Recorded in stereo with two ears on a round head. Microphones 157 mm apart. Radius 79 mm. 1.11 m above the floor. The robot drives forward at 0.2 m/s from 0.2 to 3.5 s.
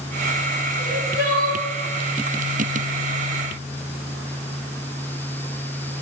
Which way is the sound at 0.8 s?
55° left (ahead or behind).